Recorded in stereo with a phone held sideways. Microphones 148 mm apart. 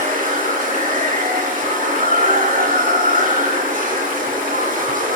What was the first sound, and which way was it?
Running water, 65° right (ahead or behind).